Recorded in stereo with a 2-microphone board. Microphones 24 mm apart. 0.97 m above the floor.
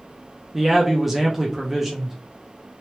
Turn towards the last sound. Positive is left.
turn(degrees=-5)  # may be behind; listen again after turning